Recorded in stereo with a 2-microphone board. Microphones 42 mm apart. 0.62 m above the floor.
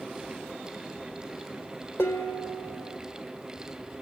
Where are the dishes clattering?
70° left (ahead or behind), 1.5 m.